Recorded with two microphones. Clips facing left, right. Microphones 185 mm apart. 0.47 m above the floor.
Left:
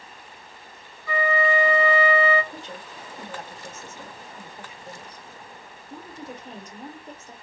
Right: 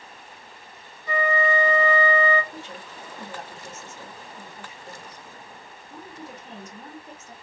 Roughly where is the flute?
Centre.